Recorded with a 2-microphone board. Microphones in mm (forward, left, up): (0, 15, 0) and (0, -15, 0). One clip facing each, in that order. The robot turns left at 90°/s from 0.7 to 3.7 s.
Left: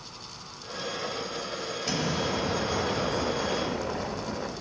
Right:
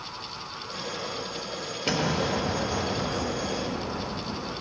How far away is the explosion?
About 1.2 m.